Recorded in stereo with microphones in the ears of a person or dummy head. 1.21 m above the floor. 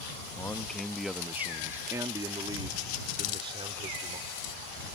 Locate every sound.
0.4 s a man speaking: 15° left (ahead or behind); by 4.2 s 35° right (ahead or behind)
3.2 s a hiss: 65° left (ahead or behind)